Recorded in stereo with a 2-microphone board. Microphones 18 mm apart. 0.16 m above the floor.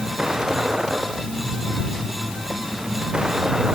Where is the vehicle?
40° right (ahead or behind).